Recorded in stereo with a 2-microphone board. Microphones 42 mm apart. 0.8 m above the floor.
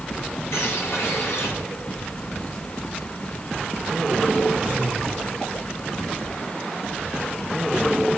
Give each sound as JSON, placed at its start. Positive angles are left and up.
{"t": 0.5, "sound": "a bird", "side_deg": 75, "distance_m": 9.0}